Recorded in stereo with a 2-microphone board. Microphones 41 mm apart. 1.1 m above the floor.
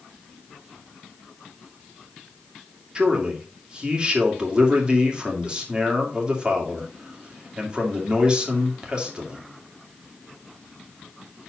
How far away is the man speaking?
About 2.5 m.